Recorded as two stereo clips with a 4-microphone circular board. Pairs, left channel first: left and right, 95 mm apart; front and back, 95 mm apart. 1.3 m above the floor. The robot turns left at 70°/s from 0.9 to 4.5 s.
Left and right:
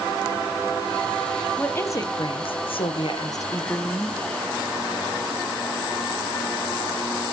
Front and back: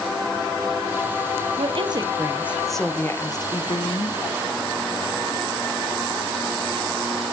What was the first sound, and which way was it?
A woman speaking, 170° left.